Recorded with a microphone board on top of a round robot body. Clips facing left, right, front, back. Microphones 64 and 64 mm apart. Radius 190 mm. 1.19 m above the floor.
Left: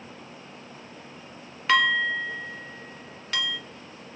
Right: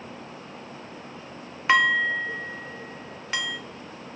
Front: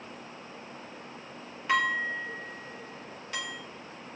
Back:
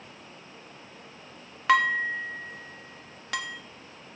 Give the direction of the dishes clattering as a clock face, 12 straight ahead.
5 o'clock.